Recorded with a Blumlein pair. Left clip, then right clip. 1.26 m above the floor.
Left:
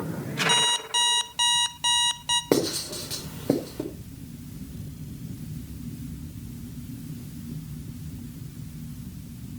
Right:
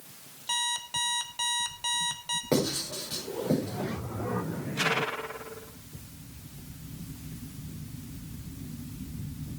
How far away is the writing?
About 5 m.